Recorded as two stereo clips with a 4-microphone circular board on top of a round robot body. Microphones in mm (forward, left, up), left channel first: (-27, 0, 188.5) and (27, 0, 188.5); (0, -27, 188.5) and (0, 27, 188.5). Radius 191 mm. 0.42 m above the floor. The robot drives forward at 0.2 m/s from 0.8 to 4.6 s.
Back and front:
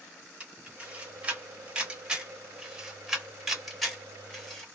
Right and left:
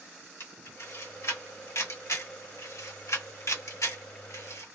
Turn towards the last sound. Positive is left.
turn(degrees=-100)